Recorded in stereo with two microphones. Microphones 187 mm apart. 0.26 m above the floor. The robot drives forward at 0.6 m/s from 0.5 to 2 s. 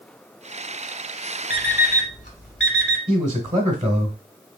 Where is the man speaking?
35° right (ahead or behind), 1.1 m.